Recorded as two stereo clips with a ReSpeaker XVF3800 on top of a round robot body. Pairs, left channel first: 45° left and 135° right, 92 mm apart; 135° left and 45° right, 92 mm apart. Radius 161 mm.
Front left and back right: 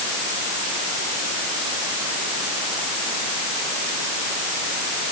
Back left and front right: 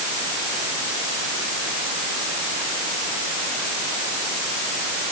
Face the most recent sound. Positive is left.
No sound to turn to.